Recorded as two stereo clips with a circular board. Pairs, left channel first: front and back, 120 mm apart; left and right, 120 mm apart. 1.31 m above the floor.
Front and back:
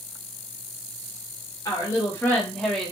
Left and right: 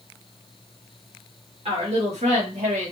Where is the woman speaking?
60° right, 1.2 m; by 2.9 s 95° right, 1.0 m.